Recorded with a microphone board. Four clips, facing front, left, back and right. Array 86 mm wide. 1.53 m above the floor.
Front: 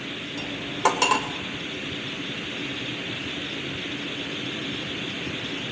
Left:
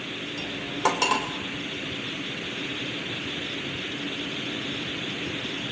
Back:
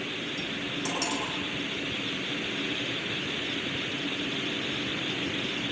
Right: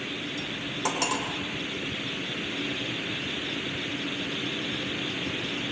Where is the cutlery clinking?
25° left, 3 m.